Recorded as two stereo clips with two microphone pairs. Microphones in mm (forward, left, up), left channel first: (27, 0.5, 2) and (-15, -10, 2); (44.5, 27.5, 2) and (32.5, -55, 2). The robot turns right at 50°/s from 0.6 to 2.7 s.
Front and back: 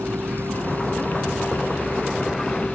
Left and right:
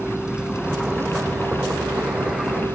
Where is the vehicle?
Straight behind; by 2.8 s 75° right.